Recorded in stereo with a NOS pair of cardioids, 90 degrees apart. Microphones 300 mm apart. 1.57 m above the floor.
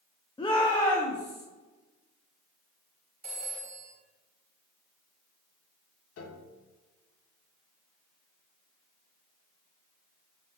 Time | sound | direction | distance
0.4 | a shout | 15° left | 0.9 m
3.2 | a phone ringing | 20° right | 2 m
6.2 | a piano | 60° left | 1.1 m